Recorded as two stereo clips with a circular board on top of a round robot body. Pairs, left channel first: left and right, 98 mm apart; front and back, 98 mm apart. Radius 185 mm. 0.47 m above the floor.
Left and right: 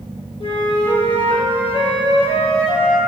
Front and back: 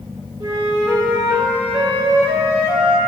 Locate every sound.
0.4 s a flute: 125° left, 1.7 m